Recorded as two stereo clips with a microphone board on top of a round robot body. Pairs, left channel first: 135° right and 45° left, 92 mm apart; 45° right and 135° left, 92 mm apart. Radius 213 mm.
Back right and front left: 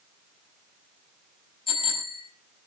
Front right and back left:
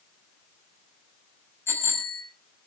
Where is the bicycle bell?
110° right, 5 m.